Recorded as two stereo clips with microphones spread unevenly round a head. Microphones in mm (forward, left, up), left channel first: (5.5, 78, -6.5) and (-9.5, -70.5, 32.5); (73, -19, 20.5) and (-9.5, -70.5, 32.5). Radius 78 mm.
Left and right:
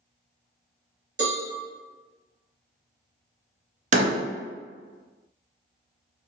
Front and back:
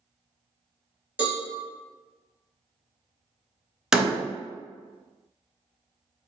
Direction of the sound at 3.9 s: 70° right.